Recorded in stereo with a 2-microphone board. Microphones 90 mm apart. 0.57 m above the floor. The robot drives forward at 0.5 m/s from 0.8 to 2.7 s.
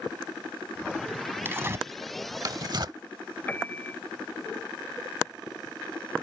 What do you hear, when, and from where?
1.4 s tearing paper: 25° right (ahead or behind); by 3.0 s 50° right (ahead or behind)
3.5 s a piano: 20° left (ahead or behind)